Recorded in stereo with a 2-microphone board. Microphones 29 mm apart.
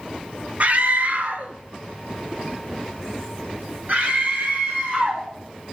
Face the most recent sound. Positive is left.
turn(degrees=-60)  # may be behind; listen again after turning